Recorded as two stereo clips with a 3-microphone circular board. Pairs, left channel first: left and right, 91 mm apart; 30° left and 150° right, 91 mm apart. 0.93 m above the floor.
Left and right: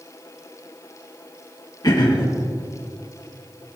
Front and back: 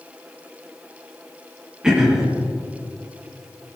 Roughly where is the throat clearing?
Behind left.